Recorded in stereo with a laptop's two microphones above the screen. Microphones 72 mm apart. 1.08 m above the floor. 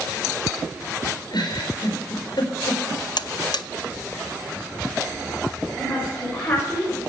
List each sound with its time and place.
1.3 s a giggle: 75° left (ahead or behind), 4.5 m
3.2 s a buzzer: 80° left, 0.6 m
5.8 s a woman speaking: 20° left (ahead or behind), 5.5 m